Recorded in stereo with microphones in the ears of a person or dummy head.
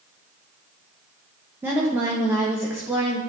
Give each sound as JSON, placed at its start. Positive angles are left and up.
{"t": 1.6, "sound": "a woman speaking", "side_deg": -10, "distance_m": 1.1}